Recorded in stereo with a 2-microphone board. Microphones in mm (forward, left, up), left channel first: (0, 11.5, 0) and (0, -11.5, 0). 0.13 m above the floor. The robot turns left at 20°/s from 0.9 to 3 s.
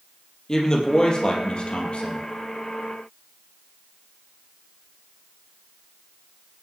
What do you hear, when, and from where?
0.5 s a woman speaking: 30° left (ahead or behind), 3.5 m; by 2.3 s 50° left (ahead or behind), 3.5 m